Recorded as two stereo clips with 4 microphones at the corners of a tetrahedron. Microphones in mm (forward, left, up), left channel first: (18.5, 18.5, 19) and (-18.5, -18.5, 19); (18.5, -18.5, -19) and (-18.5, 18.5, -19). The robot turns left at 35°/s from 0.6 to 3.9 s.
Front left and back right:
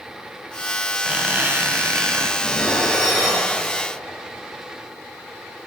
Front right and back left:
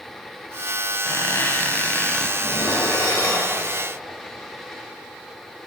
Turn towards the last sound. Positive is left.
turn(degrees=-70)